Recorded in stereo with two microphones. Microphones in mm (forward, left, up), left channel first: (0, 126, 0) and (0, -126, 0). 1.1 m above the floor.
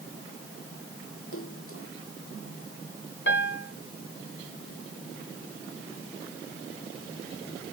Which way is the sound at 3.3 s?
55° left (ahead or behind).